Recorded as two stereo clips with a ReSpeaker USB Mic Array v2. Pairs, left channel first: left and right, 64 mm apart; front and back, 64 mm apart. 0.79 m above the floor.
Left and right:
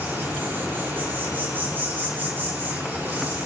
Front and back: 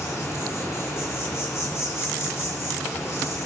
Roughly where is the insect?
Ahead right.